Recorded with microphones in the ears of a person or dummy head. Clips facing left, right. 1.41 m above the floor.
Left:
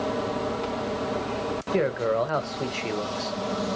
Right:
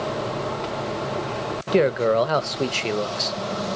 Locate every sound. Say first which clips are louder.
1.7 s a man speaking: right 6 dB; 50° right (ahead or behind), 0.5 m